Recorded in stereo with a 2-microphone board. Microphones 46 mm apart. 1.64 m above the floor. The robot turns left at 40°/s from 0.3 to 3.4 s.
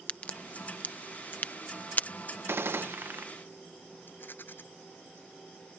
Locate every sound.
0.1 s a crack: 35° left (ahead or behind)
2.5 s a gunshot: 80° right; by 3.3 s 115° right
4.1 s a rattle: 45° left (ahead or behind)